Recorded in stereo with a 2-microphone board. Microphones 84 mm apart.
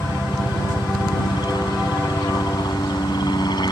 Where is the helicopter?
60° left (ahead or behind).